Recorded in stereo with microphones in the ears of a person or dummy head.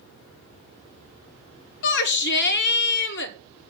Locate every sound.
1.8 s a shout: 65° left (ahead or behind), 1.7 m